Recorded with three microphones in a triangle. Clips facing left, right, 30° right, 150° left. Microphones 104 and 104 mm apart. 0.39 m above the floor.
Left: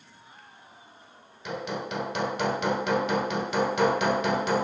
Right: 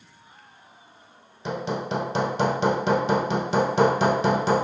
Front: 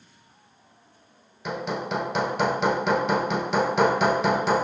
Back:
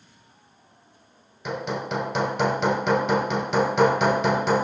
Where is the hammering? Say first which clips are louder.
Right 5 dB, even; 120° right, 0.8 m.